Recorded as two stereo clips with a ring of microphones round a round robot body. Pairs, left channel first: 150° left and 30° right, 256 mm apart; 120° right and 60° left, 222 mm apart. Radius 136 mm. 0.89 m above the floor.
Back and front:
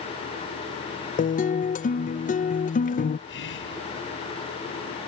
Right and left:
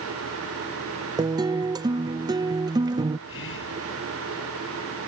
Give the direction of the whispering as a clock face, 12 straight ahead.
5 o'clock.